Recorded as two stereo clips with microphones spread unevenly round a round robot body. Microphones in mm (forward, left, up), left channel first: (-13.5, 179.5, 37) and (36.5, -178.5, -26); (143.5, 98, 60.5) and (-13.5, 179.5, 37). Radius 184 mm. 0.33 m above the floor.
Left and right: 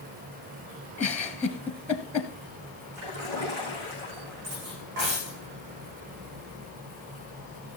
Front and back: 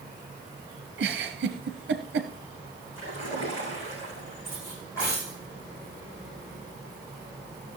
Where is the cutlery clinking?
105° right, 9.5 m.